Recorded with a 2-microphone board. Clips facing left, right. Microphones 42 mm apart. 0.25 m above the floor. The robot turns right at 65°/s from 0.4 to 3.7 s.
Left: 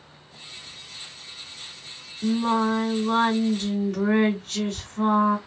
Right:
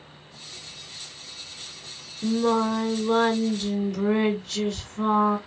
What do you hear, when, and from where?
2.2 s singing: straight ahead, 2 m; by 5.4 s 100° left, 2 m